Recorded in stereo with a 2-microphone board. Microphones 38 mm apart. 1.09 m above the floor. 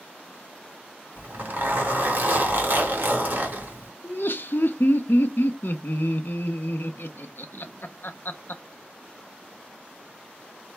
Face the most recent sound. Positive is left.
turn(degrees=60)  # may be behind; listen again after turning